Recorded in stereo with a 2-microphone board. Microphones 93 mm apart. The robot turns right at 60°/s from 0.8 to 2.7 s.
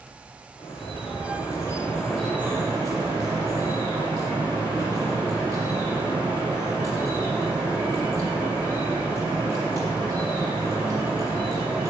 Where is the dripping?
100° left, 7 m; by 11.9 s 145° right, 7 m.